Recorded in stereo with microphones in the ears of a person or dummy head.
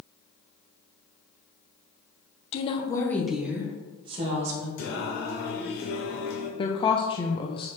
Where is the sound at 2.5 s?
40° left (ahead or behind), 1.4 m; by 4.7 s 35° right (ahead or behind), 2 m.